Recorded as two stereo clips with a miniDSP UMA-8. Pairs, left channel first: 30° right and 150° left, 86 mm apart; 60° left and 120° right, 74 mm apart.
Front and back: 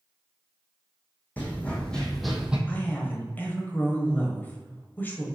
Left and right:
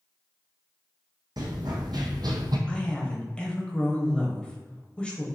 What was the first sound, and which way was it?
Running footsteps, 100° right.